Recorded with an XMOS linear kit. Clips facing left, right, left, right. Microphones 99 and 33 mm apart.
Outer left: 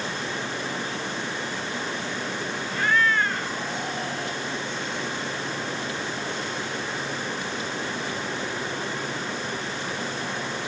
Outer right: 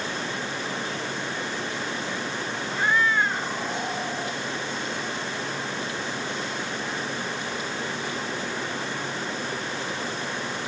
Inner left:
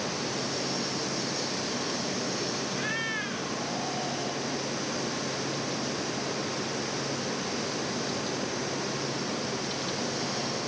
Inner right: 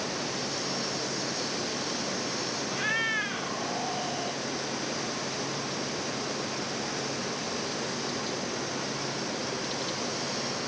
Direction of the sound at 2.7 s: 15° right (ahead or behind).